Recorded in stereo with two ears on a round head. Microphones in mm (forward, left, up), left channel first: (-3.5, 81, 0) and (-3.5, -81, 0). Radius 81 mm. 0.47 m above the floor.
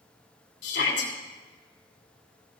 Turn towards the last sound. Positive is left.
turn(degrees=65)  # may be behind; listen again after turning